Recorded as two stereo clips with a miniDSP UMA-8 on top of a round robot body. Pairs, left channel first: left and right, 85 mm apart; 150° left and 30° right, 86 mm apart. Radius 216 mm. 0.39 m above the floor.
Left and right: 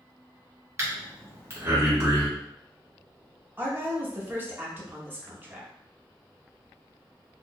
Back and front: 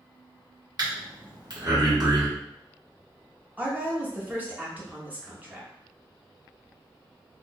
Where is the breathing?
40° right, 1.6 m.